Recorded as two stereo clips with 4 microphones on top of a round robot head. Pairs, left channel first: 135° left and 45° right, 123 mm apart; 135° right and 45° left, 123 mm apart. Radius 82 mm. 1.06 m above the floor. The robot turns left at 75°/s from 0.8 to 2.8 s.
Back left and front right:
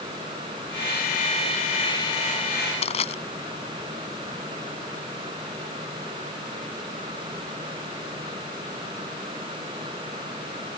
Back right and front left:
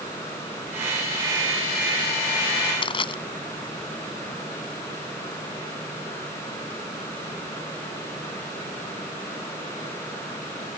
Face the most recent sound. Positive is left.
turn(degrees=175)